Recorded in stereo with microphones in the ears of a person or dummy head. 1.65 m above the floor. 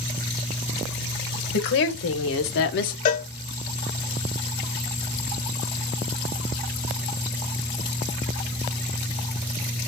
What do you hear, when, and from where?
1.5 s a woman speaking: 65° left (ahead or behind), 1.4 m; by 3.0 s 55° left (ahead or behind), 1.0 m
3.0 s a cowbell: 45° left (ahead or behind), 0.7 m